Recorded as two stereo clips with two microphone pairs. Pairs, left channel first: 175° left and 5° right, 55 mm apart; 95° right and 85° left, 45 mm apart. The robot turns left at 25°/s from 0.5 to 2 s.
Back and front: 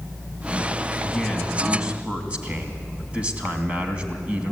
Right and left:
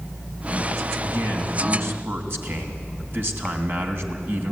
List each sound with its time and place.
1.0 s a man speaking: 85° left, 2.5 m; by 4.5 s 60° left, 2.5 m